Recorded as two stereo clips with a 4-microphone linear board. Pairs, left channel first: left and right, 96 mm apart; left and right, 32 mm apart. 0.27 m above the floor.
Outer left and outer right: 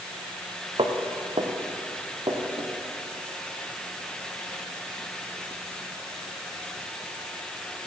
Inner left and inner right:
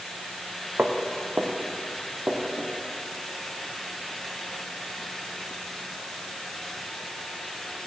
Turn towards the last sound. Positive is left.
turn(degrees=-55)  # may be behind; listen again after turning